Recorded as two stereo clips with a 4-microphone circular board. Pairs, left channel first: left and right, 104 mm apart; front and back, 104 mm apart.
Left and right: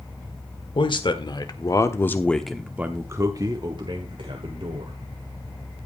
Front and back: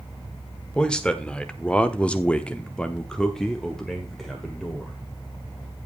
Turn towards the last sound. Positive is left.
turn(degrees=-90)